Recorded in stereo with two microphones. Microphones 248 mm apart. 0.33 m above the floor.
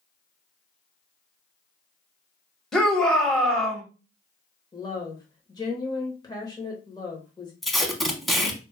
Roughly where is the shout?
Centre.